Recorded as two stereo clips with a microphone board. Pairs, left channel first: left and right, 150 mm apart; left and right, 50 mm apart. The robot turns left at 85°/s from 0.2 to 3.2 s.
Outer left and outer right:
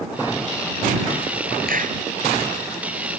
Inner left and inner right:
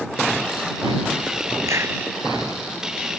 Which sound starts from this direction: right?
A clap, at 1.7 s.